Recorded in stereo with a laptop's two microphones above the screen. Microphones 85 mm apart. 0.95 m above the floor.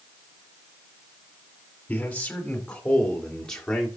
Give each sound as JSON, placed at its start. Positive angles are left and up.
{"t": 1.9, "sound": "a man speaking", "side_deg": 15, "distance_m": 4.0}